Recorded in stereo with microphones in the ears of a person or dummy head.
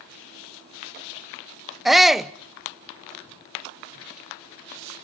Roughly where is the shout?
Centre.